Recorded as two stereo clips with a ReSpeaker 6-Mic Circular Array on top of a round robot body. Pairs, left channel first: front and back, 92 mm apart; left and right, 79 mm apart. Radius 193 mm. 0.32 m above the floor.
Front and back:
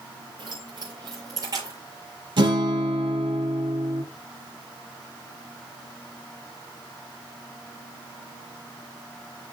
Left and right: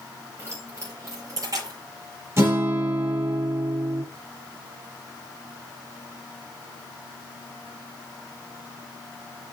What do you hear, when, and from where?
0.4 s keys jangling: 145° right, 6.5 m; by 1.8 s 130° right, 6.5 m
2.4 s a guitar: 145° right, 5.5 m